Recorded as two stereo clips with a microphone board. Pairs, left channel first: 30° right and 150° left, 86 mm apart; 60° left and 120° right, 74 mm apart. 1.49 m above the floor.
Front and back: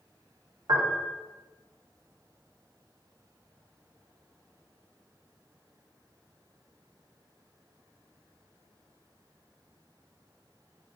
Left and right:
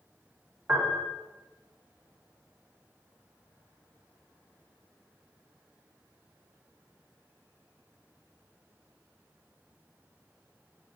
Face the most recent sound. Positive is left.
turn(degrees=180)